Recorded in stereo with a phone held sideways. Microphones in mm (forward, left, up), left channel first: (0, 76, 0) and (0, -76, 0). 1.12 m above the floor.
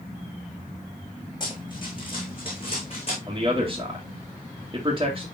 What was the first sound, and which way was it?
Running footsteps, 30° left (ahead or behind).